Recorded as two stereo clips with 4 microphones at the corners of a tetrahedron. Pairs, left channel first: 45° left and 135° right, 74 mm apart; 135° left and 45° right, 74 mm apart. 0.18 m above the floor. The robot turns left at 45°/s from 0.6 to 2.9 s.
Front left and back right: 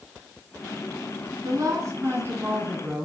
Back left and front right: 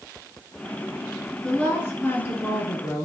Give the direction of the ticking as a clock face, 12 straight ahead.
I don't hear ticking.